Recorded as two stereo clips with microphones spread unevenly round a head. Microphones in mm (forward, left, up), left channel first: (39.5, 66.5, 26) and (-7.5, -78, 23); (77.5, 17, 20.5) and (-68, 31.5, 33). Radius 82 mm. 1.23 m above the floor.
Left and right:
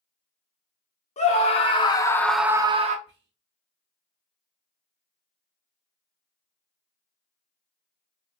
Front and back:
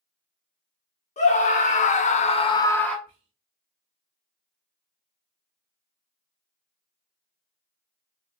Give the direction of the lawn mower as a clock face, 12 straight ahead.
No lawn mower in this recording.